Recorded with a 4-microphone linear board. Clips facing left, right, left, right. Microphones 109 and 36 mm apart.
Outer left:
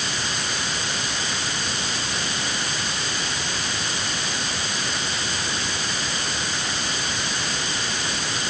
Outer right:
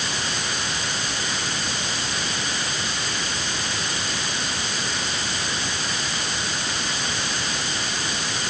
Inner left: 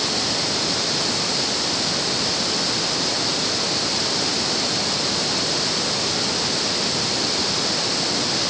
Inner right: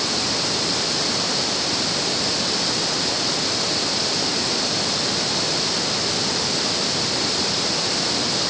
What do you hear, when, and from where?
Only background noise.